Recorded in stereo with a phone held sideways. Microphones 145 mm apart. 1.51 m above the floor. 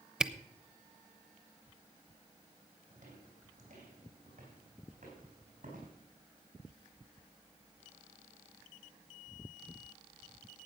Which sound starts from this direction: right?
Footsteps, at 2.9 s.